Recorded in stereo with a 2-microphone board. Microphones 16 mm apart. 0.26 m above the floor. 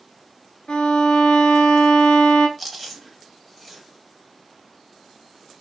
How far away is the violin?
About 0.6 m.